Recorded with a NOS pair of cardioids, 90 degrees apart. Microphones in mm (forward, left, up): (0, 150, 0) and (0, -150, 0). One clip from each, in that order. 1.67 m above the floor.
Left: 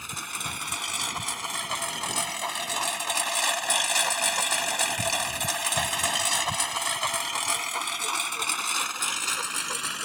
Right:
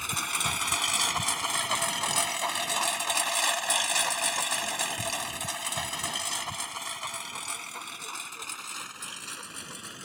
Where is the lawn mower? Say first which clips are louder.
Right 4 dB; 30° right; by 10.1 s 75° left.